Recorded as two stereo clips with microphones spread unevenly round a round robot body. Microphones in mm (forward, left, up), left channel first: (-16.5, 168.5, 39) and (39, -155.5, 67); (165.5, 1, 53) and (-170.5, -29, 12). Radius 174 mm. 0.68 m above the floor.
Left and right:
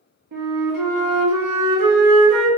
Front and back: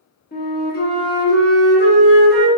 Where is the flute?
55° right, 0.9 m.